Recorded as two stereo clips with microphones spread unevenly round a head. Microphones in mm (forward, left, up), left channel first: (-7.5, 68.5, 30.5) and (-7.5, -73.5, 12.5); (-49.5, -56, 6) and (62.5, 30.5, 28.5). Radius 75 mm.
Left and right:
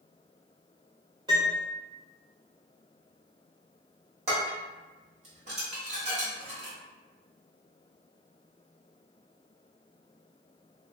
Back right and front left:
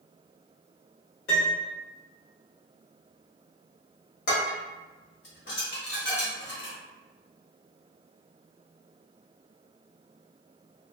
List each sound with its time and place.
1.3 s a piano: 155° right, 1.5 m
4.3 s dishes clattering: 135° right, 1.3 m